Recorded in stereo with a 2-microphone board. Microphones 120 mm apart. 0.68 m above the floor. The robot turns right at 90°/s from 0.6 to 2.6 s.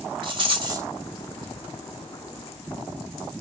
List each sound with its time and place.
0.2 s a rattle: 45° right (ahead or behind), 1.0 m; by 0.9 s 20° right (ahead or behind), 1.0 m